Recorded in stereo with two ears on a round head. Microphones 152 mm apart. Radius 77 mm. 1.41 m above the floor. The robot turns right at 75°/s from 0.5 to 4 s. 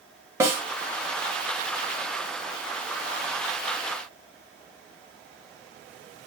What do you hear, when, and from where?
0.4 s a snare drum: 15° right (ahead or behind), 1.0 m; by 0.6 s 5° right (ahead or behind), 1.0 m